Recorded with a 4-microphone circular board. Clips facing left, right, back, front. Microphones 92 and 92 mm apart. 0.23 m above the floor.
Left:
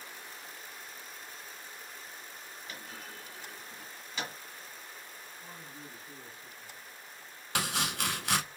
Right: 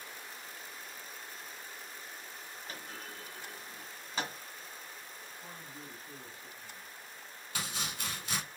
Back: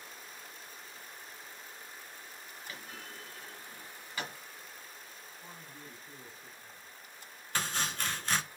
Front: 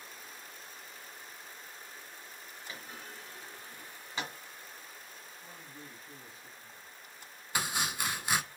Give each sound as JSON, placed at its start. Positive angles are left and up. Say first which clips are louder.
{"t": 2.7, "sound": "a clunk", "louder": "even, front 1 dB", "azimuth_deg": -55, "distance_m": 1.6}
{"t": 5.4, "sound": "a woman speaking", "louder": "even, back 1 dB", "azimuth_deg": -120, "distance_m": 1.8}
{"t": 7.5, "sound": "chopping", "louder": "left 7 dB, front 1 dB", "azimuth_deg": 80, "distance_m": 0.6}